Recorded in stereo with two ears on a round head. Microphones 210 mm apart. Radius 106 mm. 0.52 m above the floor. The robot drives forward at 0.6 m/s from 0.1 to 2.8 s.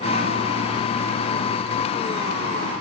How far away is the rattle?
I don't hear a rattle.